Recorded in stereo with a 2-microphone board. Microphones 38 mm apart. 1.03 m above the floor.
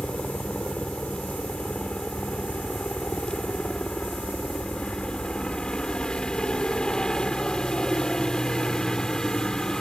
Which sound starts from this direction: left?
A helicopter, at 0.0 s.